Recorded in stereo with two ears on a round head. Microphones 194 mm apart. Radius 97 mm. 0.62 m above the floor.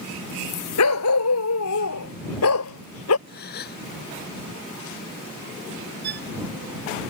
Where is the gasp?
50° left (ahead or behind).